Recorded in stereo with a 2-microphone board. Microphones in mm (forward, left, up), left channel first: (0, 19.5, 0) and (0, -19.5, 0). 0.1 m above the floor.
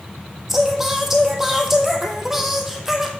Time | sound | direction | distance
0.5 | singing | 5° right (ahead or behind) | 1.3 m